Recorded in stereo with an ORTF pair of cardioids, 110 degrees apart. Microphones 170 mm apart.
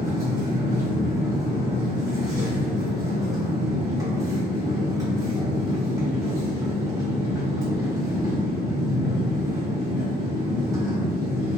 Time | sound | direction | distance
0.0 | a machine running | 20° right | 1.2 m